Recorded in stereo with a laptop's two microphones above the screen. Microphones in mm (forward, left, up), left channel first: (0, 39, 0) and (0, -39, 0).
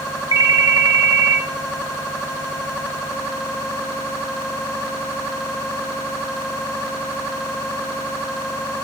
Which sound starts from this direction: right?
A ringtone, at 0.3 s.